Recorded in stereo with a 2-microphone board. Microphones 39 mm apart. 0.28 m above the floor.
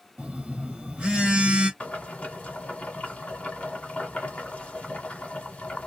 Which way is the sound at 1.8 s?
40° left (ahead or behind).